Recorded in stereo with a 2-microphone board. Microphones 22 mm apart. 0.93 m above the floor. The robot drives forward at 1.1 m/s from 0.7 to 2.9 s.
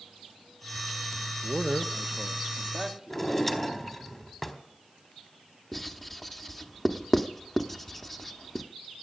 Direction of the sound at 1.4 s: 45° right (ahead or behind).